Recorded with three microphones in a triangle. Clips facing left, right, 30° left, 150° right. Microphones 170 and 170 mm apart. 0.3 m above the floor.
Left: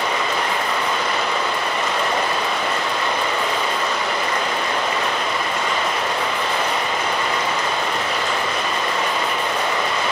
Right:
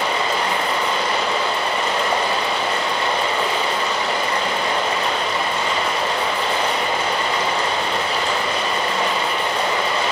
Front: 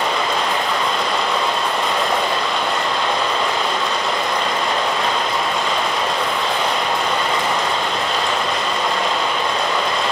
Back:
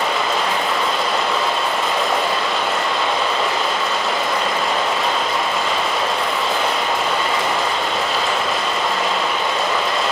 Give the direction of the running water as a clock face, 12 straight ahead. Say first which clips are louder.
Right 1 dB, even; 2 o'clock.